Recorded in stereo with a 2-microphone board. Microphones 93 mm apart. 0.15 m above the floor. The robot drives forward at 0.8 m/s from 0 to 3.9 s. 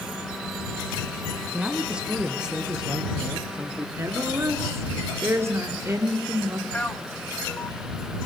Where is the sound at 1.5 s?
10° right (ahead or behind), 1.6 m; by 3.9 s 5° right (ahead or behind), 3 m.